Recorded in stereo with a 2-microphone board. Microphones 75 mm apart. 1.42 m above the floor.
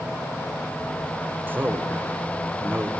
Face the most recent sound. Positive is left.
turn(degrees=-25)  # may be behind; listen again after turning